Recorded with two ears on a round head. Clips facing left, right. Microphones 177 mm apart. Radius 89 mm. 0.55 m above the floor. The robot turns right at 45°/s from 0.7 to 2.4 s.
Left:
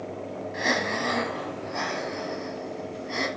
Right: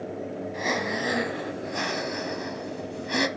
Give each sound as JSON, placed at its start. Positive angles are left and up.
{"t": 0.5, "sound": "breathing", "azimuth_deg": 175, "distance_m": 1.0}